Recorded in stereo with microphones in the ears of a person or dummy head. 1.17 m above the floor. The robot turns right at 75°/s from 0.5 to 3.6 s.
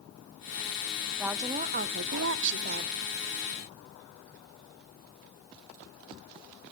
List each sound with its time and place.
1.2 s a woman speaking: 175° right, 0.7 m; by 2.9 s 45° right, 0.7 m